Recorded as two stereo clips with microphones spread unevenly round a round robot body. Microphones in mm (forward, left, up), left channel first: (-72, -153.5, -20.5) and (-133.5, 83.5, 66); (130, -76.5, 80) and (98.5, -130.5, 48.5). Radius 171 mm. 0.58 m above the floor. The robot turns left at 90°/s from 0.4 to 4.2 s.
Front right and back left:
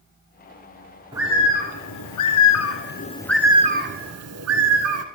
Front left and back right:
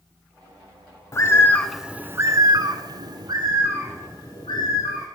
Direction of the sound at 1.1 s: 30° left.